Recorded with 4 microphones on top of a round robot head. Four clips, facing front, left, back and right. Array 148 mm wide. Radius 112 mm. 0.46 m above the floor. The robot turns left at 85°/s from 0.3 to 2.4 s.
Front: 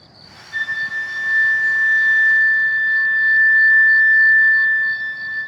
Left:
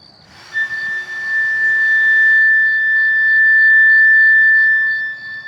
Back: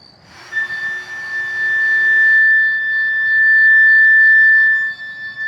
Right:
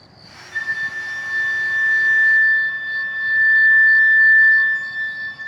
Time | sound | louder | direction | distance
0.5 | a flute | left 4 dB, back 1 dB | 135° left | 3.5 m